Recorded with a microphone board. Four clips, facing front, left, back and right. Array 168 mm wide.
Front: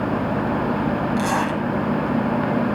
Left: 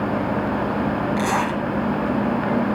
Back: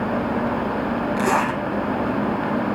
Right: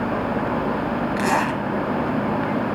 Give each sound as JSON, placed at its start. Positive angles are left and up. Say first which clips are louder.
{"t": 1.2, "sound": "a zipper", "louder": "even, back 1 dB", "azimuth_deg": -130, "distance_m": 6.5}